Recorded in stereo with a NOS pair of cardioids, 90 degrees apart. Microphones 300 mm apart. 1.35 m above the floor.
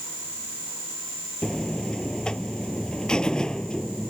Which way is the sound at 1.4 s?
5° left.